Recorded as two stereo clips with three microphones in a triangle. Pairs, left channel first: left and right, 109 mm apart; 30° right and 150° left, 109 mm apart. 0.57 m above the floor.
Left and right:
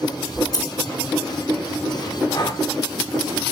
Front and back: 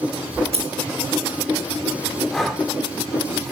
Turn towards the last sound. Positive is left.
turn(degrees=55)